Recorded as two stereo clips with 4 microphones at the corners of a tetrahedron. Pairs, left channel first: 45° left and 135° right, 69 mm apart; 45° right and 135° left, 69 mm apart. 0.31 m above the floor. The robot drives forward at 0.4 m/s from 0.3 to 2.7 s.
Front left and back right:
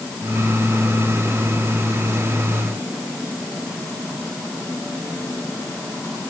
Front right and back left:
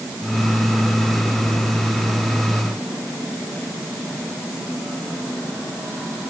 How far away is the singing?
I don't hear singing.